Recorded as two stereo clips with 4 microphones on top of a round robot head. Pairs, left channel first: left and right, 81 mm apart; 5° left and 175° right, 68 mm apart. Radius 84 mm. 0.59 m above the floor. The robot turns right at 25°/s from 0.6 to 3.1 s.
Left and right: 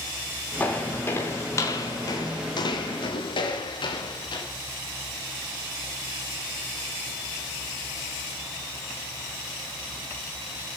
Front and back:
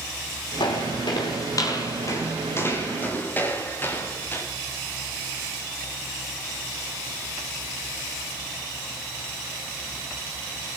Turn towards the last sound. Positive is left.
turn(degrees=65)